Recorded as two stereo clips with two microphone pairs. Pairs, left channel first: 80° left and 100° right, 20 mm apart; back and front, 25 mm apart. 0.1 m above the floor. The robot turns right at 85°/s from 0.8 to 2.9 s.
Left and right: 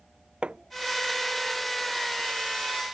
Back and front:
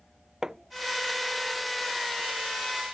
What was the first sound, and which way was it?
Hammering, 75° right.